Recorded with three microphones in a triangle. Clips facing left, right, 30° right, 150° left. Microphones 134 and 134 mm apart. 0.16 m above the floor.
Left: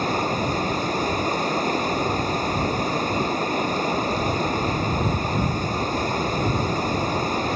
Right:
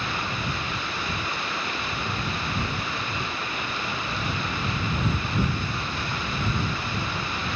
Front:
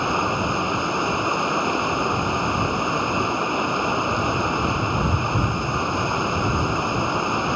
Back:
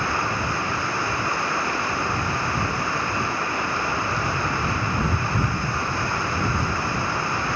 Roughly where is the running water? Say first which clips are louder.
Left 8 dB, front 3 dB; ahead left.